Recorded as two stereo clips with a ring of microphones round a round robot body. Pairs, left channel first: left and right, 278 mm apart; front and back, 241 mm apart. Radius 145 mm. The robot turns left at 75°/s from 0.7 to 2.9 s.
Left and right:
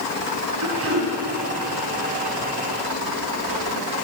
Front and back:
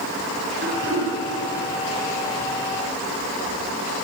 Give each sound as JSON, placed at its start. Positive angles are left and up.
{"t": 0.6, "sound": "throat clearing", "azimuth_deg": -120, "distance_m": 4.5}